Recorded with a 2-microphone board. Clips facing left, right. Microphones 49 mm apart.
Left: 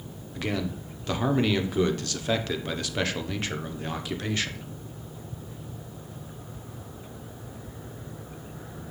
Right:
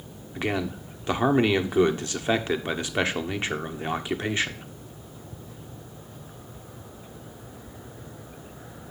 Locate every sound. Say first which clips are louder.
0.3 s a man speaking: right 2 dB; 20° right (ahead or behind), 0.9 m